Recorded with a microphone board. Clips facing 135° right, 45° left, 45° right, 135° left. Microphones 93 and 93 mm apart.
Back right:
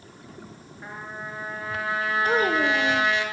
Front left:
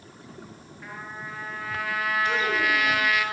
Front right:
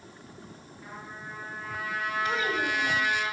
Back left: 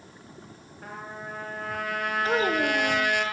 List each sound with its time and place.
0.8 s a trumpet: 165° left, 7 m
2.2 s a child speaking: 175° right, 1.9 m